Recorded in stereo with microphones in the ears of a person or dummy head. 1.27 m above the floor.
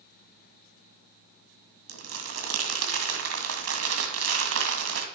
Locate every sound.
1.9 s crumpling: 75° right (ahead or behind), 2 m